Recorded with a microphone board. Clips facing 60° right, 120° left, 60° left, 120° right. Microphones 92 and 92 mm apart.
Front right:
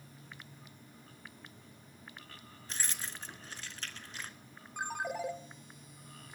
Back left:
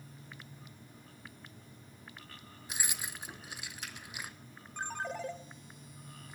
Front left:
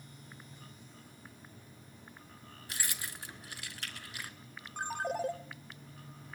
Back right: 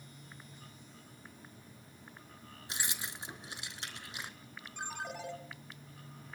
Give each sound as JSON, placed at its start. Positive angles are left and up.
{"t": 2.7, "sound": "keys jangling", "azimuth_deg": -170, "distance_m": 0.8}
{"t": 4.8, "sound": "a ringtone", "azimuth_deg": 20, "distance_m": 1.0}